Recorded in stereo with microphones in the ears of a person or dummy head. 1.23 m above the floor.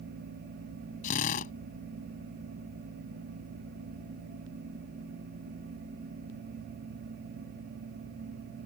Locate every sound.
1.0 s a drill: 45° left (ahead or behind)